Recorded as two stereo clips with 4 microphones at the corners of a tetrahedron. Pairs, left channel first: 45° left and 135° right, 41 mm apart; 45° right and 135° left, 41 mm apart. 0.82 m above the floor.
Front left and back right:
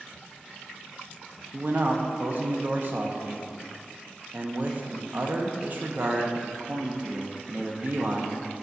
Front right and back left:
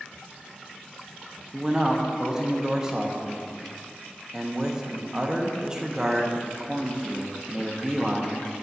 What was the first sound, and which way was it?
A man speaking, 160° right.